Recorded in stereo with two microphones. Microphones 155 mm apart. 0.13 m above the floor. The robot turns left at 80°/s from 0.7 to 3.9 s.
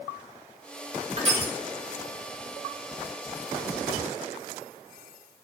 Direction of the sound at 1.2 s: 45° right (ahead or behind).